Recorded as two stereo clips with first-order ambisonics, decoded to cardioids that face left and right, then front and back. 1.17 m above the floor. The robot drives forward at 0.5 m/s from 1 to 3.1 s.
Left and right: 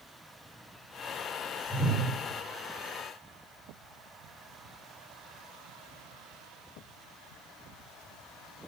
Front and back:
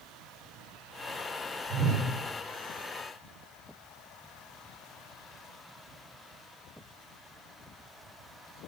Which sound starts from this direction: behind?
A whoosh, at 1.7 s.